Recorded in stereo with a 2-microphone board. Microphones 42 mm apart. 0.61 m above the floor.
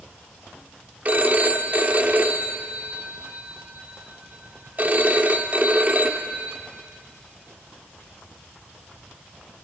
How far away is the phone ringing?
About 1.1 m.